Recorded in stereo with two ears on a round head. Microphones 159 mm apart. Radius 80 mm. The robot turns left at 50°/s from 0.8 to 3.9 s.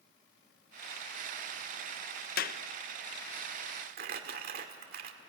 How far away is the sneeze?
I don't hear a sneeze.